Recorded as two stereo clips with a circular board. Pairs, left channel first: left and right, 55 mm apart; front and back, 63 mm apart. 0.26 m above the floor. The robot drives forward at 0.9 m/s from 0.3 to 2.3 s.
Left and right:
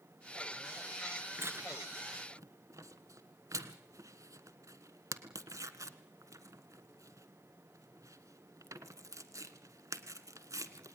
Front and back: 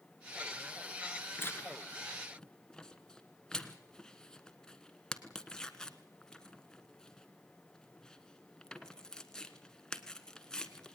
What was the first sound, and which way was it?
Tearing paper, 50° right.